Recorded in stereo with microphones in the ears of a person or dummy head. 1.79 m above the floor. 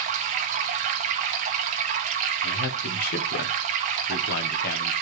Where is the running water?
45° right (ahead or behind), 1.0 m.